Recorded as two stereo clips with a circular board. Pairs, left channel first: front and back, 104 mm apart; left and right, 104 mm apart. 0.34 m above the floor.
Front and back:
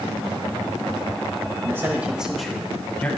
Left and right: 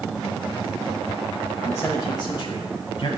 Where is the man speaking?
145° left, 1.0 m; by 3.1 s 70° left, 1.6 m.